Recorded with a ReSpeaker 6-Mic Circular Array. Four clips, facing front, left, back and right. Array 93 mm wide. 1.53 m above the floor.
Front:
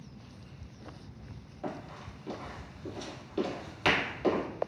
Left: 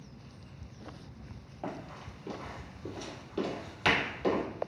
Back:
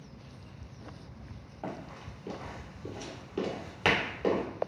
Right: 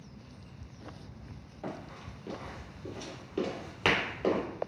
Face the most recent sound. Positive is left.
turn(degrees=-115)